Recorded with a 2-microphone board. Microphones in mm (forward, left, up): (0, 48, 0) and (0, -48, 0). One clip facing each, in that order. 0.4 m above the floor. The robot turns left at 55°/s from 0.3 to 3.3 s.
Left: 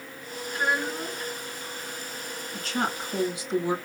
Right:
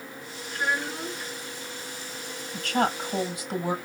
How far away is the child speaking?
About 3 m.